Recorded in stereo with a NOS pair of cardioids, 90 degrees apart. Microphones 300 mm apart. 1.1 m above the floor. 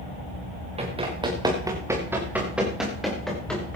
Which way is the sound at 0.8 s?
20° right.